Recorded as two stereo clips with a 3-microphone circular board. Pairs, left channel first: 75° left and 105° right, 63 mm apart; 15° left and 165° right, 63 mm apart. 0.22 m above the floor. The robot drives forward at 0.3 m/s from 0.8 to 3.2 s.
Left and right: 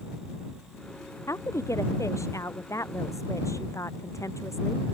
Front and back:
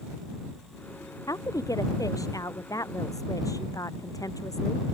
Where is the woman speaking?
40° left.